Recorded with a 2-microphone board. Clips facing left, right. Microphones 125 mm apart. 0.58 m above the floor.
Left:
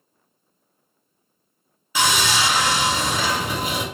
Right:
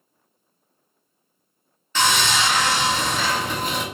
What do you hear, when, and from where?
1.9 s sawing: 10° left (ahead or behind), 1.0 m